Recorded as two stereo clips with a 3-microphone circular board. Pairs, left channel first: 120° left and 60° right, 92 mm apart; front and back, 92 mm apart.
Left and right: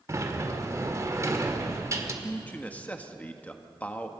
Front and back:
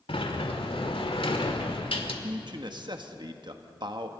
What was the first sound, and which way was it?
A sliding door, 5° right.